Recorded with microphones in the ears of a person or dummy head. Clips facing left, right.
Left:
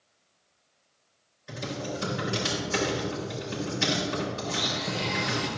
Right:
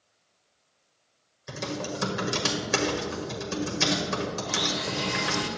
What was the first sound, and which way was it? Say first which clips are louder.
Typing on a keyboard: right 1 dB; 65° right (ahead or behind).